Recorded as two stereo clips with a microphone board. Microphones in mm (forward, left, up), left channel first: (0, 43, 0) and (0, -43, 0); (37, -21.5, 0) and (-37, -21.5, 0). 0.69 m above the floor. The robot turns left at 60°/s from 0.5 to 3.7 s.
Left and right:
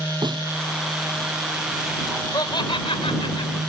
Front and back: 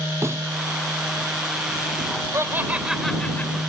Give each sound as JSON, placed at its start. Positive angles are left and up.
{"t": 0.2, "sound": "a snare drum", "azimuth_deg": -125}
{"t": 2.3, "sound": "laughter", "azimuth_deg": 130}